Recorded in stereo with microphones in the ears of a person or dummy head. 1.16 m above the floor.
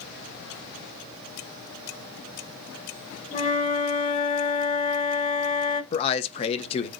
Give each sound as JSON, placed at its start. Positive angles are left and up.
{"t": 3.3, "sound": "a flute", "side_deg": 35, "distance_m": 1.0}
{"t": 5.9, "sound": "a man speaking", "side_deg": 35, "distance_m": 1.0}